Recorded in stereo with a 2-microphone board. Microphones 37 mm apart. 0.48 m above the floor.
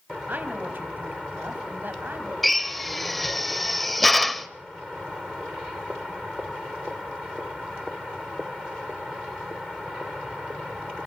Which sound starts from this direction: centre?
A drill, at 2.4 s.